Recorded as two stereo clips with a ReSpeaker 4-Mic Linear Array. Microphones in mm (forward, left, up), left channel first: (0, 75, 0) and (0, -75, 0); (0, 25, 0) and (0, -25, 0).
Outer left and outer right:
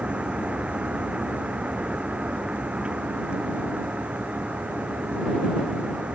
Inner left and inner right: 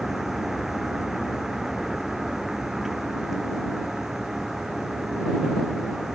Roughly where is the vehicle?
Centre.